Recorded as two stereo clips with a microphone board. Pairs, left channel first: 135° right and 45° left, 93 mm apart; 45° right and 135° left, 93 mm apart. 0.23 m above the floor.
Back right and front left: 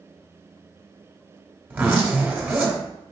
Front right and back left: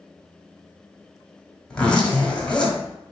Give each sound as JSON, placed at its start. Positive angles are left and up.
{"t": 1.7, "sound": "a zipper", "azimuth_deg": 15, "distance_m": 1.3}